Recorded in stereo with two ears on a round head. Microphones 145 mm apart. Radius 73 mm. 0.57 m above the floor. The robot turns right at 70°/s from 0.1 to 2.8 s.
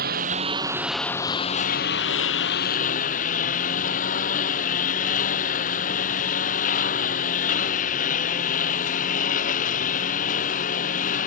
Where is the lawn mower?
60° right; by 11.3 s 130° left.